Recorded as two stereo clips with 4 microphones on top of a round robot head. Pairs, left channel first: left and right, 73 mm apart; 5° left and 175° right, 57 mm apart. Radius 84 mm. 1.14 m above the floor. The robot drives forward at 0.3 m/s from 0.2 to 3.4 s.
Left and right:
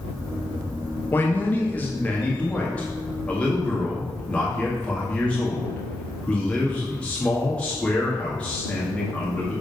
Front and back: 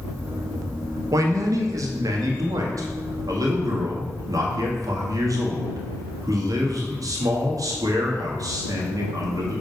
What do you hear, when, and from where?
1.1 s a man speaking: 155° left, 0.8 m; by 9.6 s 165° left, 1.4 m